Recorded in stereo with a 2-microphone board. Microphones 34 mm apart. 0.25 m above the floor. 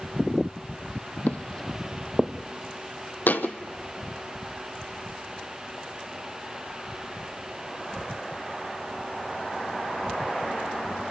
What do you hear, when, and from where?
1.3 s footsteps: 55° left (ahead or behind), 0.6 m; by 2.3 s 30° right (ahead or behind), 1.4 m
3.3 s a thud: 75° left (ahead or behind), 1.2 m